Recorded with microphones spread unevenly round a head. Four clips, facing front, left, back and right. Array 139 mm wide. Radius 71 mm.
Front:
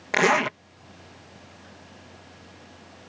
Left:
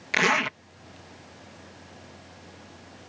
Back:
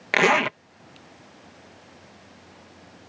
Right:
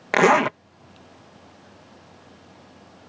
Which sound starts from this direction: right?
A zipper, at 0.1 s.